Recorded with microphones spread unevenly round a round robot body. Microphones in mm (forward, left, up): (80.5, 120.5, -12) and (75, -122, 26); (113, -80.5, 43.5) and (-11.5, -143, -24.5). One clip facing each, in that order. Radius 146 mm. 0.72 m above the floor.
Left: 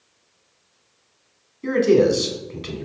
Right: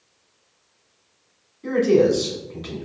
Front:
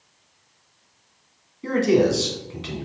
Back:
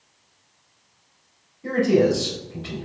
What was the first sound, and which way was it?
A man speaking, 45° left.